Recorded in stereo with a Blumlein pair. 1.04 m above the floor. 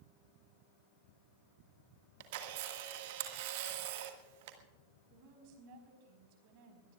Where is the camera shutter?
50° right, 1.7 m.